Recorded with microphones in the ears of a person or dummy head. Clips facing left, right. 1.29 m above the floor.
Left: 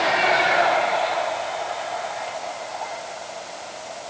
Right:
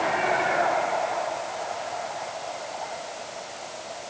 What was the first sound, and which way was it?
Only background noise.